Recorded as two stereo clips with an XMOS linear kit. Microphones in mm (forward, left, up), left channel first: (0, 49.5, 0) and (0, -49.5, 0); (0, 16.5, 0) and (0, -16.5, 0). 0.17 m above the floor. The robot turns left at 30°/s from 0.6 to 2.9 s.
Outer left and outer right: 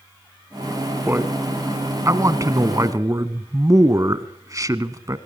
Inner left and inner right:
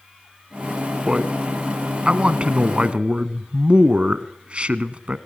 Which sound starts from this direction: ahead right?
A man speaking, at 1.1 s.